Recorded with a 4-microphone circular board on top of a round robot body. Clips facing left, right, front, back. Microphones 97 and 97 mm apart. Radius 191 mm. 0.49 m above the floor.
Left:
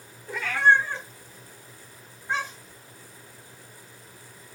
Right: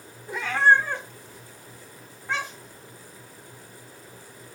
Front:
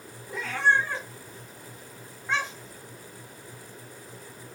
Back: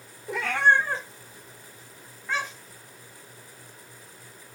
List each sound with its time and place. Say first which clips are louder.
0.3 s a cat meowing: right 1 dB, back 3 dB; 165° right, 1.2 m; by 2.8 s 65° right, 2.5 m